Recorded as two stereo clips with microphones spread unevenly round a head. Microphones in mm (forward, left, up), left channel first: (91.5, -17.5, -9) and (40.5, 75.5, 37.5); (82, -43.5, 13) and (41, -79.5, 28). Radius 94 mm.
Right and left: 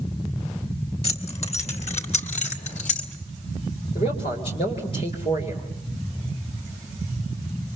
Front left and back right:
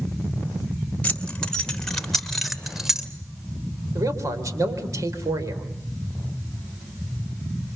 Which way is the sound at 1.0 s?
30° right.